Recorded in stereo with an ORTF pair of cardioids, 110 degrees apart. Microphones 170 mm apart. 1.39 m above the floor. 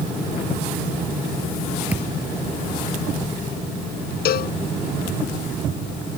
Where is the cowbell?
70° left.